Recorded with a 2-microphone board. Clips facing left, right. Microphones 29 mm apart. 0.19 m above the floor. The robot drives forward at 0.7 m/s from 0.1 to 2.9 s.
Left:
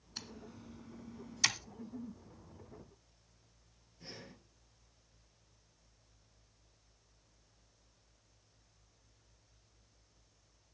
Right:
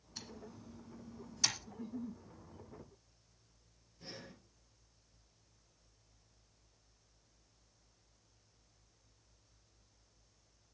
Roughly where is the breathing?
Centre.